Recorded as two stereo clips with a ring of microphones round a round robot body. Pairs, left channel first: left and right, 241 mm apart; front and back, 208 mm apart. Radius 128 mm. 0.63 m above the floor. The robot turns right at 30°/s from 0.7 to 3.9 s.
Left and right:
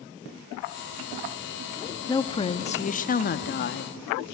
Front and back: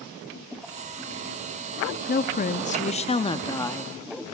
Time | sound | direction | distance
2.1 | a woman speaking | 20° left | 0.9 m